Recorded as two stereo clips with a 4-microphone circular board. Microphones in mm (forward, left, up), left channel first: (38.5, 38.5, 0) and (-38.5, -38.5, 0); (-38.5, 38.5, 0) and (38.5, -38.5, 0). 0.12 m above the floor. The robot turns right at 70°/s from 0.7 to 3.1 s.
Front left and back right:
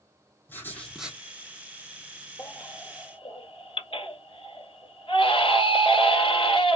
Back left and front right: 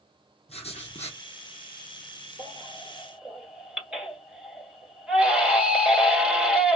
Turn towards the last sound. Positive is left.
turn(degrees=35)